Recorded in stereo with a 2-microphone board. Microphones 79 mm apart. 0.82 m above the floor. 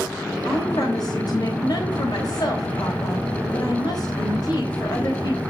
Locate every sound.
0.5 s a woman speaking: 60° left (ahead or behind), 3.5 m